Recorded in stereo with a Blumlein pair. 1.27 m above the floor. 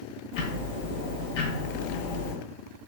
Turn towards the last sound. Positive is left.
turn(degrees=45)